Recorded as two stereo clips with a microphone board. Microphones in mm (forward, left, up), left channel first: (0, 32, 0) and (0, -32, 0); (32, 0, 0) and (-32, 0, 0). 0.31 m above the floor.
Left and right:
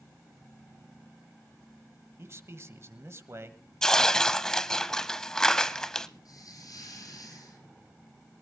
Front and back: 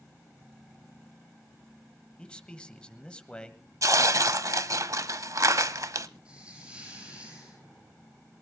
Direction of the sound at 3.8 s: 170° left.